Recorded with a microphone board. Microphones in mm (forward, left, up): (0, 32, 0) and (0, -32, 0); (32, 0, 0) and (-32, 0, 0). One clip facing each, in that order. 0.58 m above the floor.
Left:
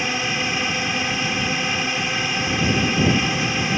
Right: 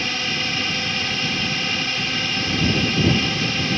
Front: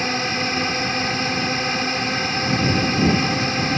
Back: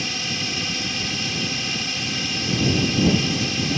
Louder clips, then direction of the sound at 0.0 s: Left 2 dB, front 6 dB; 20° left.